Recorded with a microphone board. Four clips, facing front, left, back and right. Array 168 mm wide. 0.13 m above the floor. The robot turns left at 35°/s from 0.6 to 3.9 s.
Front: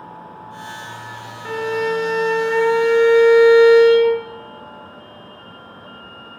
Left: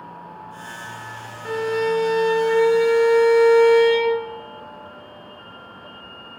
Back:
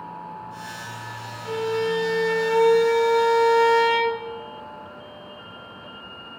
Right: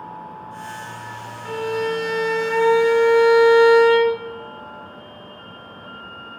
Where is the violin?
20° left, 1.0 m; by 4.2 s 70° right, 1.0 m.